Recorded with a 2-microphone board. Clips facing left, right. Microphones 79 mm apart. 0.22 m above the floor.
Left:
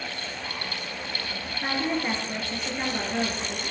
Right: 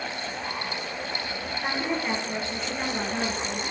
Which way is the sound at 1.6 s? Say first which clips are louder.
Left 2 dB; 10° left (ahead or behind).